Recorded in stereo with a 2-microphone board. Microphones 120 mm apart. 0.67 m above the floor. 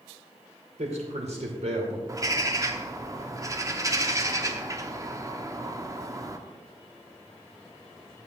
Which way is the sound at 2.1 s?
30° right (ahead or behind).